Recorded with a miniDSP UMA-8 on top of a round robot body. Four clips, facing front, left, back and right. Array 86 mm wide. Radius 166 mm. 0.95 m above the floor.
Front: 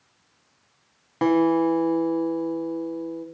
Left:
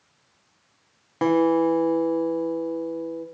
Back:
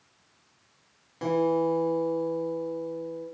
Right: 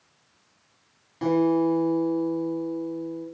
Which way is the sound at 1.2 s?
45° left.